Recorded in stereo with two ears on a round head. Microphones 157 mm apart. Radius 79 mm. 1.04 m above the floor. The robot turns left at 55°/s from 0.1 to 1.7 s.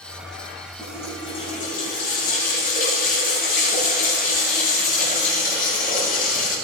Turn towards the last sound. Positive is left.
turn(degrees=130)